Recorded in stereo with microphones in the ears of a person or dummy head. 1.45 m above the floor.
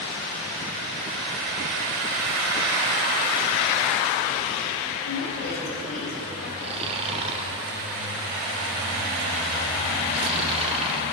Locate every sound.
5.0 s a woman speaking: 70° left (ahead or behind), 4.5 m
6.6 s snoring: 30° right (ahead or behind), 0.7 m